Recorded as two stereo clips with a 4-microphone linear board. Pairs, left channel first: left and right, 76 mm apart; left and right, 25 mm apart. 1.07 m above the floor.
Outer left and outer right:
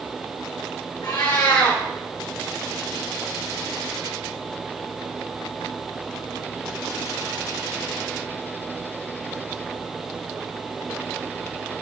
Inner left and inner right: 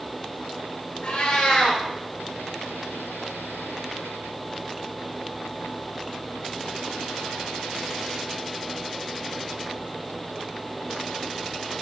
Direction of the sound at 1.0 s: 70° left (ahead or behind).